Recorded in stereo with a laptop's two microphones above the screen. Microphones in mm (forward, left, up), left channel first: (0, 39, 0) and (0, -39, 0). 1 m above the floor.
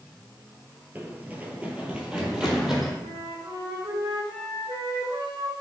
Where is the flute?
80° right, 4 m.